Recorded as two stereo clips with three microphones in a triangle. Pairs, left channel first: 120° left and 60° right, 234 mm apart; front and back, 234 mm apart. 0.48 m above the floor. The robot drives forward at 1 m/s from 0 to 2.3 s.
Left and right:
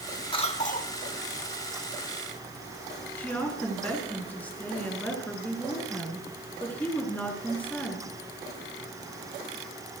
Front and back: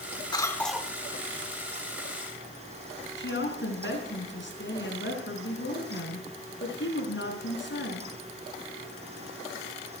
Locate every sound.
0.3 s a cough: 65° left, 1.3 m; by 0.9 s 105° left, 1.2 m
3.2 s a woman speaking: 35° left, 4.5 m